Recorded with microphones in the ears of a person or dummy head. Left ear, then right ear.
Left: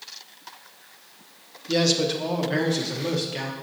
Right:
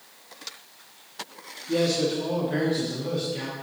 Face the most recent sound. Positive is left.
turn(degrees=50)  # may be behind; listen again after turning